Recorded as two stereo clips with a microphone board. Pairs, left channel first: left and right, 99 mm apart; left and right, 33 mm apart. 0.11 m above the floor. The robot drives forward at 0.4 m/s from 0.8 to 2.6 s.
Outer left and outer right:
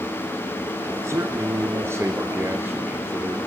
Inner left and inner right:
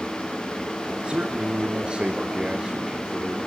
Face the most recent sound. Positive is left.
turn(degrees=-25)  # may be behind; listen again after turning